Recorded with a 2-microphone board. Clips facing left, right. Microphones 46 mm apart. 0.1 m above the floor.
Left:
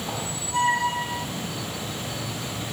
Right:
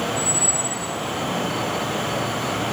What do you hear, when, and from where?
0.1 s a squeak: 60° left (ahead or behind)